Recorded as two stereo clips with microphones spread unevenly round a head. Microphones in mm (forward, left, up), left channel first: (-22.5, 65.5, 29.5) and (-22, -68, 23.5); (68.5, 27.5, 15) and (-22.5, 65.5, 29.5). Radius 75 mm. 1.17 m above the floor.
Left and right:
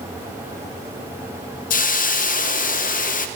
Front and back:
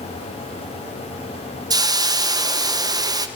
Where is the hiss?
105° left, 0.8 m.